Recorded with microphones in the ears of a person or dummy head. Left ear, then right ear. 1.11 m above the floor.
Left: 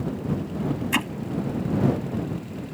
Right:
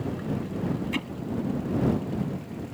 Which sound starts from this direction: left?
Hammering, at 0.9 s.